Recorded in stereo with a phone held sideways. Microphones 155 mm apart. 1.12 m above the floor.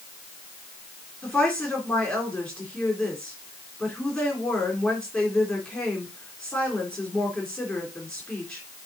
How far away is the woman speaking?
About 3 m.